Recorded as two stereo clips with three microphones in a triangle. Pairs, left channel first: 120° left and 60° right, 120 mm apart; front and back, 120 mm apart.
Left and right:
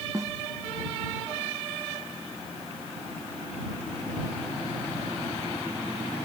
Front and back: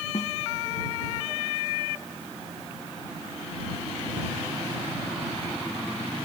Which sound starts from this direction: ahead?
A snare drum, at 0.1 s.